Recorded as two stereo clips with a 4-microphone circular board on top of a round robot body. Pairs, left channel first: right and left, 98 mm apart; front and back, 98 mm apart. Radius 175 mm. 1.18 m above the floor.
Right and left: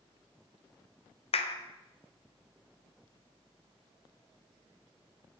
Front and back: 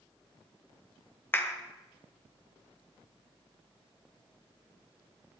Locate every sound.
1.3 s a clap: 70° right, 1.1 m